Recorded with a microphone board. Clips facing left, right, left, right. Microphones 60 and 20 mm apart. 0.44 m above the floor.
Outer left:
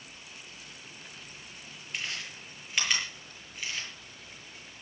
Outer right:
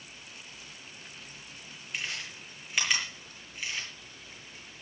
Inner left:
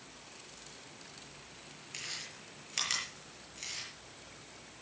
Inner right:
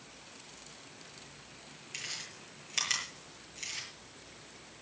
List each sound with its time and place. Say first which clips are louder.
1.9 s chewing: even, inner right 1 dB; 5° right (ahead or behind), 7.5 m